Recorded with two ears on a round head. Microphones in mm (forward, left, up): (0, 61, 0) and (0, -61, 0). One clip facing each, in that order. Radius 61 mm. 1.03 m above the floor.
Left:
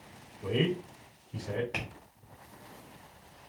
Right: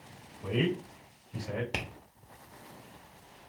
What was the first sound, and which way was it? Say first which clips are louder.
A man speaking: left 1 dB; 55° left (ahead or behind).